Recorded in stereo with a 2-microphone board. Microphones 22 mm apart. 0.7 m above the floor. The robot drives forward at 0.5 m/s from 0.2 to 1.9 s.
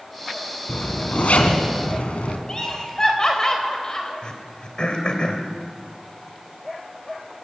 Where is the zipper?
70° left (ahead or behind), 2.5 m; by 2.4 s 80° left, 2.5 m.